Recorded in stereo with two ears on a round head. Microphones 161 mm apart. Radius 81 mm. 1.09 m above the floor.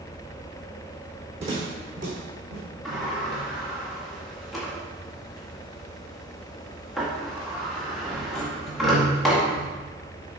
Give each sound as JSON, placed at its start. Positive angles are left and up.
{"t": 1.4, "sound": "footsteps", "side_deg": -40, "distance_m": 2.5}
{"t": 2.9, "sound": "a sliding door", "side_deg": 0, "distance_m": 1.6}